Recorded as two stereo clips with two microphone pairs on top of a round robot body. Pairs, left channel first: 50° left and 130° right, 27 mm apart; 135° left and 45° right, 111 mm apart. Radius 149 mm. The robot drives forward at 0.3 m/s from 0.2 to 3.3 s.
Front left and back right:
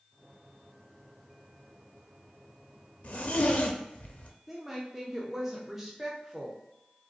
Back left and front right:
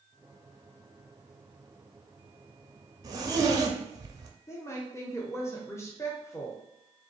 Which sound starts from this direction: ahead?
A zipper, at 3.0 s.